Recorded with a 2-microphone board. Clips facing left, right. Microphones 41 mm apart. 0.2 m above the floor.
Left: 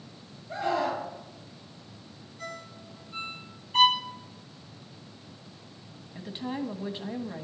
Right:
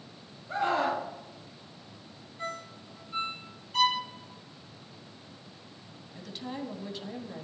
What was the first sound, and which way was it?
A scream, 35° right (ahead or behind).